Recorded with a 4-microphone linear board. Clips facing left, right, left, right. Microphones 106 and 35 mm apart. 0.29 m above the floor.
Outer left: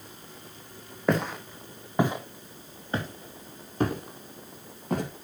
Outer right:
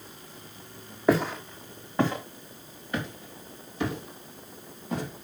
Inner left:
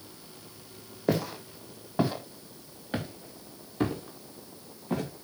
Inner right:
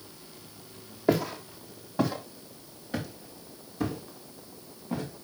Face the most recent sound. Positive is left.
turn(degrees=55)  # may be behind; listen again after turning